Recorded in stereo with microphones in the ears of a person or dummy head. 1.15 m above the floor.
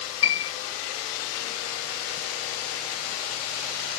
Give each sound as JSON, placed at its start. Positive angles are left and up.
{"t": 0.2, "sound": "a piano", "side_deg": 75, "distance_m": 1.7}